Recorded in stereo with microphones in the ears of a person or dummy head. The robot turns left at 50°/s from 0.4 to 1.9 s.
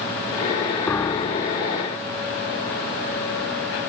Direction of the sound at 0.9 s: 175° left.